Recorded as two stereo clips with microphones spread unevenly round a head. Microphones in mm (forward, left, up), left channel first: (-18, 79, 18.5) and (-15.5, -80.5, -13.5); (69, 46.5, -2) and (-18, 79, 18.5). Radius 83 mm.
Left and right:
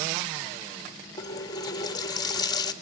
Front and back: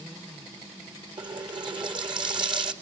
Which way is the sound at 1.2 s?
150° left.